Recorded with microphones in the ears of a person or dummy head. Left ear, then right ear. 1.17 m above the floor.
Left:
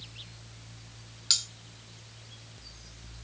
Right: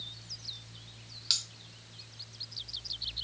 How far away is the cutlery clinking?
About 0.7 m.